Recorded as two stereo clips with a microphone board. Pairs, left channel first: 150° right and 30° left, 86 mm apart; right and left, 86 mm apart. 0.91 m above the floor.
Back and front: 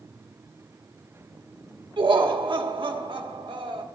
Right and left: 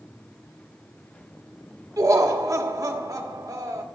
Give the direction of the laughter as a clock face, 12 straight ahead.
11 o'clock.